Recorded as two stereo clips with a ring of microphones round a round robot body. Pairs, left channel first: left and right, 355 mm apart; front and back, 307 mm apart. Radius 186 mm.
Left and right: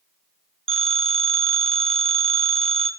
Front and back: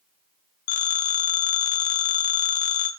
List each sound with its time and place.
0.7 s a phone ringing: 15° right, 2.5 m